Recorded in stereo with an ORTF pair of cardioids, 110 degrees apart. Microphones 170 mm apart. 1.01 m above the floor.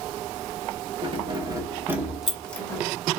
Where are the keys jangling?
35° right, 1.5 m; by 2.8 s 15° left, 1.1 m.